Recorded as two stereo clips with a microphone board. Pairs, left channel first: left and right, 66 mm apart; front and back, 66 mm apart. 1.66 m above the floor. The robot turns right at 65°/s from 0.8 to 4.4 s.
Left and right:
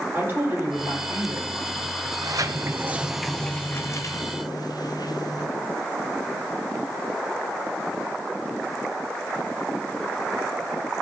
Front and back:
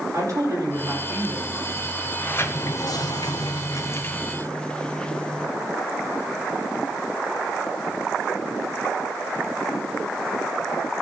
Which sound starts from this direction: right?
A sliding door, at 2.2 s.